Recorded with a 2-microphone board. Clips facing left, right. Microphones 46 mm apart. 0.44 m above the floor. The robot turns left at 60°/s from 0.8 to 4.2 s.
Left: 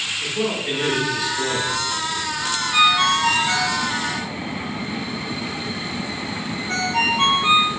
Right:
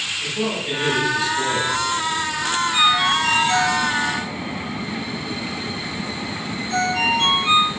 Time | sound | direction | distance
0.2 | a man speaking | 20° left | 1.5 m
2.7 | a ringtone | 15° left (ahead or behind) | 1.4 m